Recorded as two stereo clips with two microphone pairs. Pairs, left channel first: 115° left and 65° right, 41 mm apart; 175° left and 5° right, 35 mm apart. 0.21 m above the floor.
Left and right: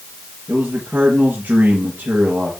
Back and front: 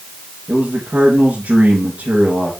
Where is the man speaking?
35° right, 3 m.